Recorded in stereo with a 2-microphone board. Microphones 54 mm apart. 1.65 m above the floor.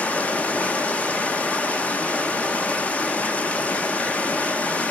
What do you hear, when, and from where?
0.0 s running water: 25° left (ahead or behind), 0.9 m